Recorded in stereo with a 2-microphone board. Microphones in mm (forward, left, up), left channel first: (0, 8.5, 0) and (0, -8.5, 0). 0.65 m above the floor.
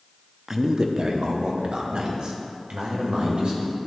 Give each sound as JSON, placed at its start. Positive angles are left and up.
{"t": 0.5, "sound": "a man speaking", "side_deg": -30, "distance_m": 0.5}